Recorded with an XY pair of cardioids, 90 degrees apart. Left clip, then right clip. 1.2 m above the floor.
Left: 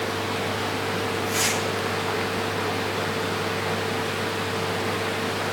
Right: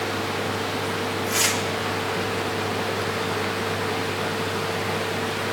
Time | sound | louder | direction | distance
1.3 | tearing paper | right 3 dB | 40° right | 3.5 m